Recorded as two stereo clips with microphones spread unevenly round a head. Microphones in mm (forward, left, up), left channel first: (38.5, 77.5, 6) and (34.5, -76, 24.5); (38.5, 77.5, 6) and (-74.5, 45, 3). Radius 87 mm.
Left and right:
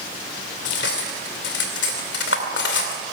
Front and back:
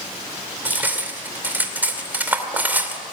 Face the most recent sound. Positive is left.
turn(degrees=120)